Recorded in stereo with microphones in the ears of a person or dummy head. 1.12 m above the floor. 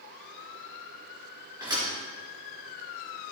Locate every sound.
1.6 s a thud: 10° right (ahead or behind), 4 m